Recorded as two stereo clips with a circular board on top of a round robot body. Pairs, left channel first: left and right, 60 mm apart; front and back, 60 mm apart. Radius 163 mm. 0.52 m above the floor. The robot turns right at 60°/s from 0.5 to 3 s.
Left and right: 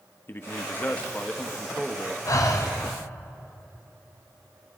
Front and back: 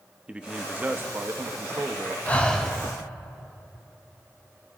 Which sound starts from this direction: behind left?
A man speaking, at 0.3 s.